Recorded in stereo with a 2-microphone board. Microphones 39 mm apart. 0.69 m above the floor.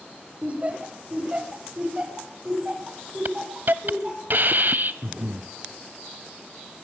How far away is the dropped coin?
No dropped coin in this recording.